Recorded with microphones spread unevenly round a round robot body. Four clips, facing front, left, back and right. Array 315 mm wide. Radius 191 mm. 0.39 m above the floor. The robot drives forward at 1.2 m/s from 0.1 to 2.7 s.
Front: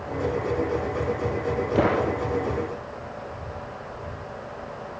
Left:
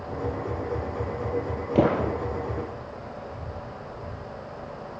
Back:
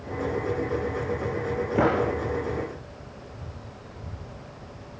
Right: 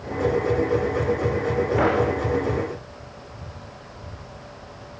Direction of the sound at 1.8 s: 105° left.